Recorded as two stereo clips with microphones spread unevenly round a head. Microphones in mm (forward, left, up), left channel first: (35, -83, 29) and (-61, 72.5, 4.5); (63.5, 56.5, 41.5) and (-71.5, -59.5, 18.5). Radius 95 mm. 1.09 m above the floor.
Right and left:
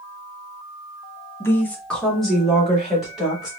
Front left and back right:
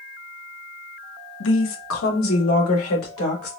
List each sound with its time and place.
1.4 s a woman speaking: 20° left, 0.8 m; by 3.5 s 35° left, 2.5 m